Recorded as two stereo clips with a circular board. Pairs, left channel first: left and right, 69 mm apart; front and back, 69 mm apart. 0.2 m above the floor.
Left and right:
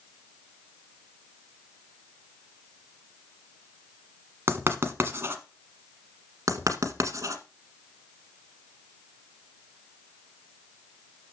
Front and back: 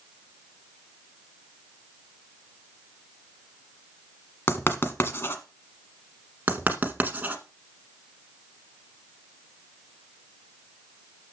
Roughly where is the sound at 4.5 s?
Ahead right.